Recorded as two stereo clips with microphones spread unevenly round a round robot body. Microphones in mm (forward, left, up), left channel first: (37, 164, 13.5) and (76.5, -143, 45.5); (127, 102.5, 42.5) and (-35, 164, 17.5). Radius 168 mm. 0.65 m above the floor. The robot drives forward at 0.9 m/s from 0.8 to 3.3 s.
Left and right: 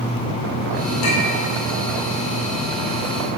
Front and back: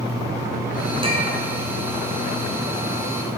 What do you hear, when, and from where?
1.0 s a clink: 100° left, 1.4 m; by 1.4 s 110° left, 1.5 m